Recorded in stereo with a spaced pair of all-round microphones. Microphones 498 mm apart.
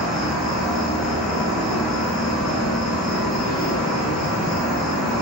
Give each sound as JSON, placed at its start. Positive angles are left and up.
{"t": 0.0, "sound": "an insect", "side_deg": 0, "distance_m": 0.8}